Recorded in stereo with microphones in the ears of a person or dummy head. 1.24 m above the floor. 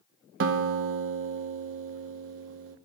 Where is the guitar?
70° right (ahead or behind), 0.9 m.